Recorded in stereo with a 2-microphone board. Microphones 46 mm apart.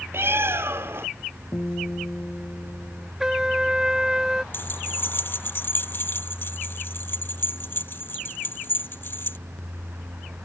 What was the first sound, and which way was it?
A bird, 65° right (ahead or behind).